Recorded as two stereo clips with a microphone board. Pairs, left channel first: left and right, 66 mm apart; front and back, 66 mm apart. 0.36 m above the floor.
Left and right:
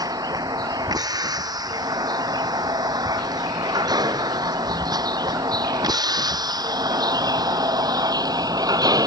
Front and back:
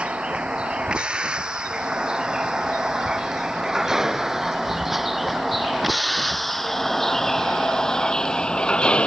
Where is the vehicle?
105° right; by 9.1 s 75° right.